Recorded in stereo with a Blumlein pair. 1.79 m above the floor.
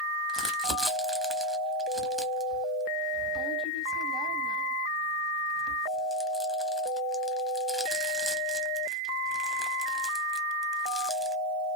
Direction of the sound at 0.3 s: 5° right.